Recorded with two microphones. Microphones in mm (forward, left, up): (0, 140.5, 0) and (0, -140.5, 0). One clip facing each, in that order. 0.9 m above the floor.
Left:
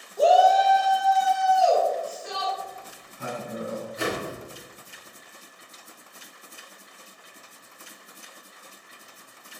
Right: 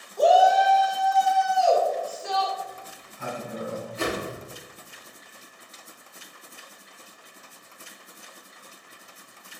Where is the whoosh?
35° right (ahead or behind), 1.7 m.